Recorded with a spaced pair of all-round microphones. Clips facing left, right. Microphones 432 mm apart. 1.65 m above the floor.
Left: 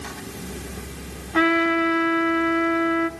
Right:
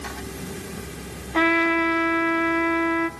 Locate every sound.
1.3 s a trumpet: 25° left (ahead or behind), 1.2 m